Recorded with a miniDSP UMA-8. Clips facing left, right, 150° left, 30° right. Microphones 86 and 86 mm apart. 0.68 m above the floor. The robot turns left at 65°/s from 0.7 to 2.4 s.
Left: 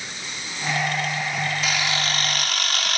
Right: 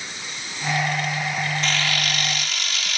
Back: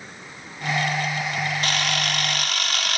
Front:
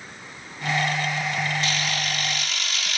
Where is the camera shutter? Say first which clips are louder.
Even, back 2 dB; 175° left, 1.1 m; by 3.0 s 125° left, 1.1 m.